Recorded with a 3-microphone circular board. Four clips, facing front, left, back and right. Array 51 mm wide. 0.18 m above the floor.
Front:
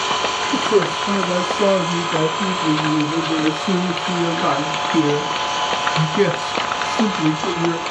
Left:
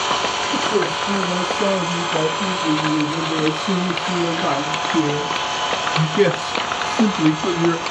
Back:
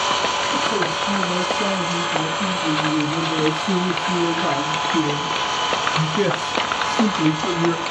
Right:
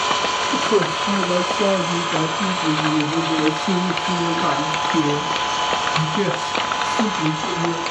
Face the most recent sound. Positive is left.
turn(degrees=105)